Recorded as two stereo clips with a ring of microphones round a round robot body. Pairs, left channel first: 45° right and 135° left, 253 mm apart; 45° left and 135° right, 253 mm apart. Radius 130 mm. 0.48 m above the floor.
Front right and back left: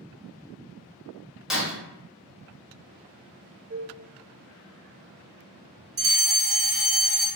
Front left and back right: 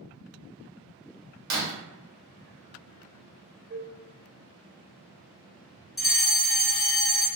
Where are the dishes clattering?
Straight behind, 1.3 m.